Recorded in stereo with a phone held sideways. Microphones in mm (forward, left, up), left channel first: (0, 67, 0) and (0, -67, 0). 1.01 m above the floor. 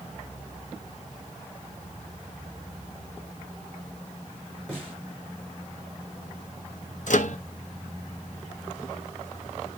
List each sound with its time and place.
4.7 s a snare drum: 5° left (ahead or behind), 8.5 m
7.1 s a microwave: 65° left (ahead or behind), 0.9 m